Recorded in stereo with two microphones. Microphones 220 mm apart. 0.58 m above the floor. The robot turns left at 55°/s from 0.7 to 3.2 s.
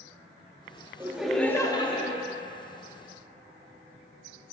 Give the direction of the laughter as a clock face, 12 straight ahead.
5 o'clock.